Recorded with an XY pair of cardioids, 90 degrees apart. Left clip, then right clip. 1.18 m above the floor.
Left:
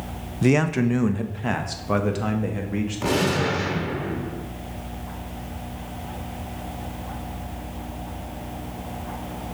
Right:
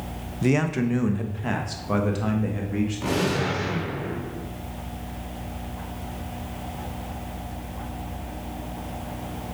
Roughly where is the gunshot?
Ahead left.